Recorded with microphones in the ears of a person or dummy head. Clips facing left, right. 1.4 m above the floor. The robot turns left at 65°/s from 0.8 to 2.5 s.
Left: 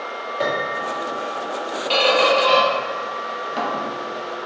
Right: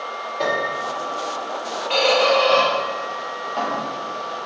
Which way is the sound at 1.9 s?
60° left (ahead or behind).